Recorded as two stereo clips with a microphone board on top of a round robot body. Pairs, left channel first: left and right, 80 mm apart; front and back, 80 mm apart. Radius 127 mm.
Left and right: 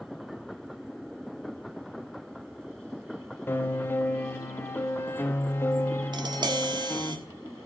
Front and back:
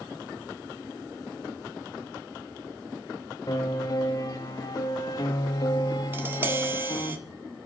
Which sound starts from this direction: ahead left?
A piano, at 3.5 s.